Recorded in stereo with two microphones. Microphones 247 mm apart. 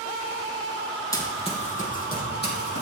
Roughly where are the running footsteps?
Centre.